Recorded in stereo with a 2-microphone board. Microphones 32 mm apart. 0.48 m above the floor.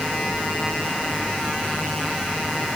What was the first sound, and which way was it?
Only background noise.